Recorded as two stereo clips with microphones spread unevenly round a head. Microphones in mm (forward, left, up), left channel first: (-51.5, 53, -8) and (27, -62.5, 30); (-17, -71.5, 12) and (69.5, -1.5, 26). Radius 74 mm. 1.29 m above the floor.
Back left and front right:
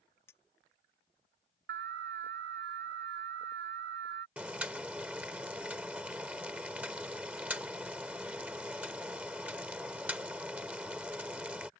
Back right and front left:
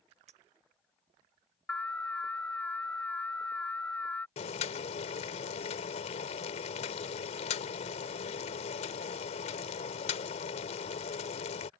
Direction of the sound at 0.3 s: 45° left.